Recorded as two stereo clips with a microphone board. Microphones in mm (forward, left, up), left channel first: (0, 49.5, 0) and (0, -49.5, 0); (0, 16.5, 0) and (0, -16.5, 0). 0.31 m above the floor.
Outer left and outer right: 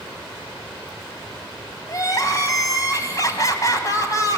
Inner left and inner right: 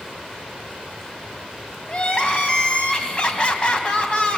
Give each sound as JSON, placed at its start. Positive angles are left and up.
{"t": 1.9, "sound": "crying", "side_deg": 40, "distance_m": 2.0}